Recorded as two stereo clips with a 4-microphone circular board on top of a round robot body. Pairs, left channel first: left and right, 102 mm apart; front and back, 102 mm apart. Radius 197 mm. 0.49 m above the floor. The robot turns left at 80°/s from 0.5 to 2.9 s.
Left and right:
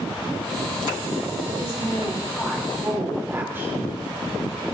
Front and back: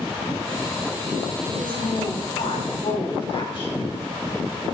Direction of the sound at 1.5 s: 90° left.